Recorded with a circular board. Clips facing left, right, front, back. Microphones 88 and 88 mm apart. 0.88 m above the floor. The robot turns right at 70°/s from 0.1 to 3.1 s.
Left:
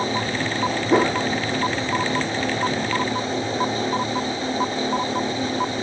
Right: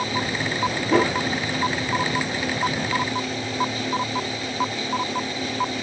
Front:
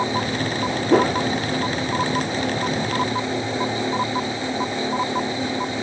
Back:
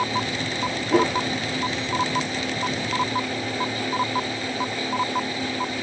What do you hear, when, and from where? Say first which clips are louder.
0.9 s a whoosh: left 1 dB, front 3 dB; 15° left, 1.4 m; by 1.2 s 35° left, 1.4 m